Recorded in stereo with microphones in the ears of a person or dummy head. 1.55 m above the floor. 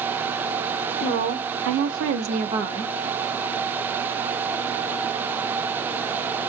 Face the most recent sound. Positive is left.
turn(degrees=-15)  # may be behind; listen again after turning